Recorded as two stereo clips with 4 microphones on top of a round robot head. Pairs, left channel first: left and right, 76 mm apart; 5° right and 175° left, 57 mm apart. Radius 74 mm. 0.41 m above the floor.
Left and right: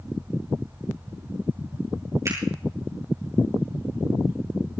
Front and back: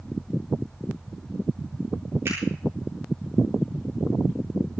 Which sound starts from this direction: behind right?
A finger snap, at 2.2 s.